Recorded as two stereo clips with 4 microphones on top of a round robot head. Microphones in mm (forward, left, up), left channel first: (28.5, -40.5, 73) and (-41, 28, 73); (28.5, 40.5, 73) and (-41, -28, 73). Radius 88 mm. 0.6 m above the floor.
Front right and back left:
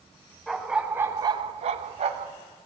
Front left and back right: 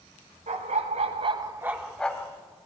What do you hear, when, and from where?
0.5 s a dog barking: 135° right, 1.1 m; by 2.3 s 115° left, 1.0 m